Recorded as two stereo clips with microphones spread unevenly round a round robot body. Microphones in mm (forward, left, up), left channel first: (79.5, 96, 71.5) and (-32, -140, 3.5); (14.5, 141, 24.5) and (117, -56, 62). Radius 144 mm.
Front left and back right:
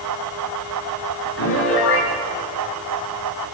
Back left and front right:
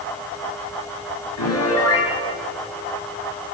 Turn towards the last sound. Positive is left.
turn(degrees=115)